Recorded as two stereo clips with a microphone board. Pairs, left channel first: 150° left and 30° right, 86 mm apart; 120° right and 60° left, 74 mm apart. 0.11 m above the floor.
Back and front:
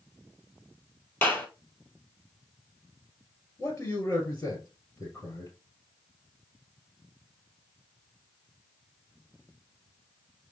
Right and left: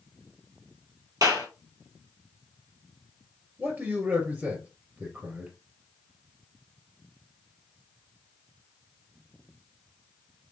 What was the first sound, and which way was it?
A clap, 85° left.